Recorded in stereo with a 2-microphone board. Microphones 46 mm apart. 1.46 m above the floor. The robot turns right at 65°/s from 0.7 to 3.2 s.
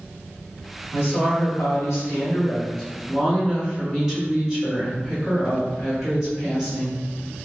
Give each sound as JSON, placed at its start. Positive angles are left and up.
{"t": 0.9, "sound": "a woman speaking", "azimuth_deg": 45, "distance_m": 1.5}